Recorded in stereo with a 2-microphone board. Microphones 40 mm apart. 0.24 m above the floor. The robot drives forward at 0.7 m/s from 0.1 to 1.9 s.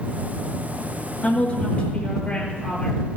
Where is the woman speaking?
25° left (ahead or behind), 3.5 m.